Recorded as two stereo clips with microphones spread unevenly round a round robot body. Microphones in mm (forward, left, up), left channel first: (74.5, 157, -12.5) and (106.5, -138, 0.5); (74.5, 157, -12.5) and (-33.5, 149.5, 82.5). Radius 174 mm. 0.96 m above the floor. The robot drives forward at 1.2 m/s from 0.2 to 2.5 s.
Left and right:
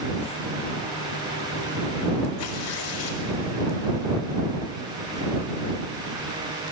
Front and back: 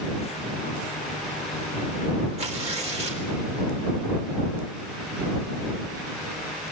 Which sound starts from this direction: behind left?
Tearing paper, at 2.4 s.